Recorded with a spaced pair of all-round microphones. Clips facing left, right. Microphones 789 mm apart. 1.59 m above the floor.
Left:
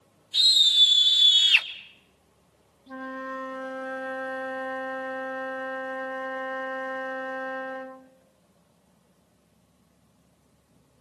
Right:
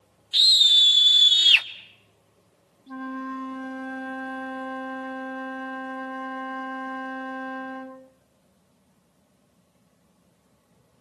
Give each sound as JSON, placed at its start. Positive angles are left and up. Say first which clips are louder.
{"t": 0.3, "sound": "a scream", "louder": "right 1 dB", "side_deg": -75, "distance_m": 2.5}
{"t": 2.9, "sound": "a flute", "louder": "right 4 dB", "side_deg": 20, "distance_m": 0.7}